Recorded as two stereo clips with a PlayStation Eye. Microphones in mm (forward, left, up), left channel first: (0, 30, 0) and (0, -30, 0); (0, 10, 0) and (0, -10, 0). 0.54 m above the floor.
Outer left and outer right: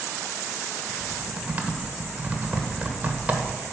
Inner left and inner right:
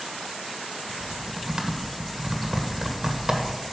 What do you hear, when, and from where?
0.9 s typing on a keyboard: 25° right (ahead or behind), 1.4 m